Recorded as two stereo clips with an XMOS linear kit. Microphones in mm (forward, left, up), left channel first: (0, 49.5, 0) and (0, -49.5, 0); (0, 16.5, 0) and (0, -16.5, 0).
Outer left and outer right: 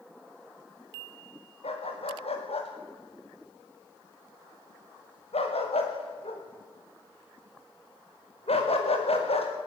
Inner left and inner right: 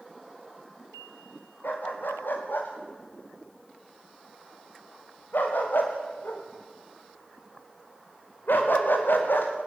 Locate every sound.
1.6 s a dog barking: 85° left, 5 m